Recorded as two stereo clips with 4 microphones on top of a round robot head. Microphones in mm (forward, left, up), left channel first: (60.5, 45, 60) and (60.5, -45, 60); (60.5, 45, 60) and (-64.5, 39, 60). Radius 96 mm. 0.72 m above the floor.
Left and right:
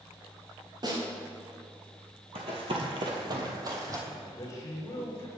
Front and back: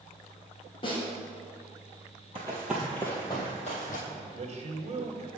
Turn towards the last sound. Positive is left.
turn(degrees=145)